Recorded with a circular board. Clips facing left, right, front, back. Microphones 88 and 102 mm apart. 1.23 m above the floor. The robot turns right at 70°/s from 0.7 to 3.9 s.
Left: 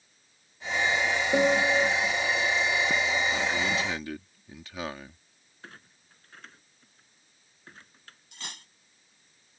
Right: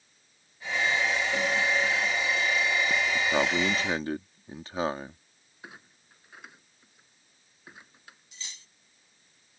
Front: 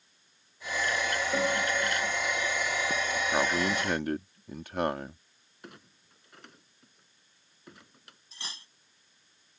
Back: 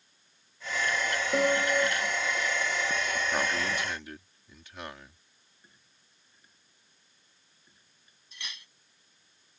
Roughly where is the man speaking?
Right.